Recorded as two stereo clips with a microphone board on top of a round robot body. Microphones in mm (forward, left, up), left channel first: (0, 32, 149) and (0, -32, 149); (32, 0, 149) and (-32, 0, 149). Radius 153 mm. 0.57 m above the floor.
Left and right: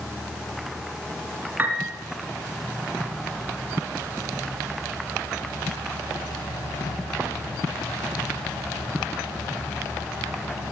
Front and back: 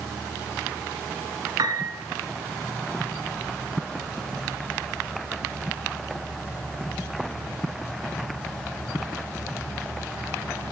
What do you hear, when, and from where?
1.6 s a piano: 155° right, 1.6 m